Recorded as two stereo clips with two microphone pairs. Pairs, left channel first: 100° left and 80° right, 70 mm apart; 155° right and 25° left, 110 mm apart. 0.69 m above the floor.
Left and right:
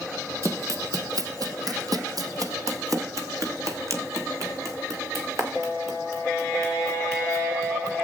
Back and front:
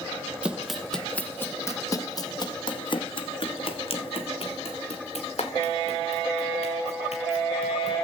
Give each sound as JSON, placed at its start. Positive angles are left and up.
{"t": 0.4, "sound": "running footsteps", "azimuth_deg": -50, "distance_m": 1.2}